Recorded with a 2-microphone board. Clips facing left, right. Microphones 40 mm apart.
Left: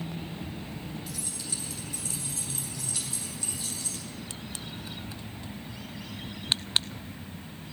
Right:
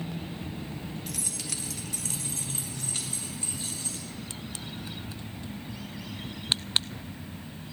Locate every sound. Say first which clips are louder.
1.1 s keys jangling: right 2 dB; 60° right (ahead or behind), 1.0 m; by 4.1 s 35° right (ahead or behind), 3.5 m